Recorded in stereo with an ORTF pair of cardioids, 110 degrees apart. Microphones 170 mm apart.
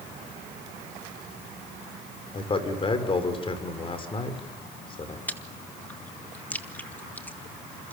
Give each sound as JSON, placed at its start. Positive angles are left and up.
{"t": 2.3, "sound": "a man speaking", "azimuth_deg": 30, "distance_m": 5.0}
{"t": 5.3, "sound": "chewing", "azimuth_deg": 10, "distance_m": 2.0}